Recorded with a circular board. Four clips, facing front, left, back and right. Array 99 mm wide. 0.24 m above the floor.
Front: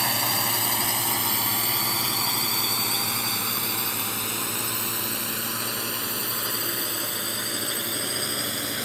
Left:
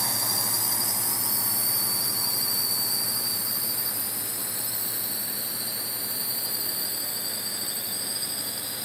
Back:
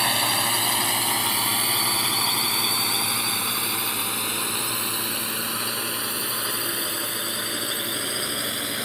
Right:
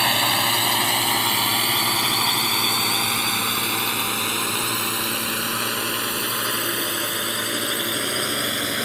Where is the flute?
No flute in this recording.